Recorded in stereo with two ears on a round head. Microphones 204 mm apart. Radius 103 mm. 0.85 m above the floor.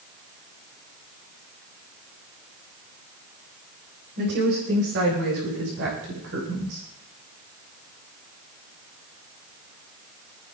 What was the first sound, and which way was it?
A woman speaking, 50° right (ahead or behind).